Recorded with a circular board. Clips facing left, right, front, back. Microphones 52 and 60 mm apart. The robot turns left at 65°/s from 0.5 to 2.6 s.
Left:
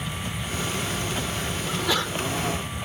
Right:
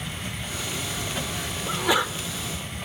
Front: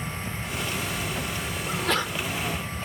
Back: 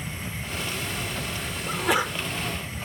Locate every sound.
1.7 s a sneeze: 110° right, 0.8 m; by 2.1 s 140° right, 0.8 m